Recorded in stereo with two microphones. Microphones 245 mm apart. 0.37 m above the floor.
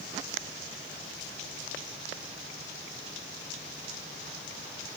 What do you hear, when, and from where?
Only background noise.